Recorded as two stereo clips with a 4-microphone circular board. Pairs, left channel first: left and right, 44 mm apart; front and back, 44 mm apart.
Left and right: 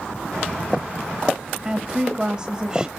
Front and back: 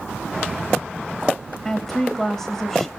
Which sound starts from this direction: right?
A woman speaking, at 1.6 s.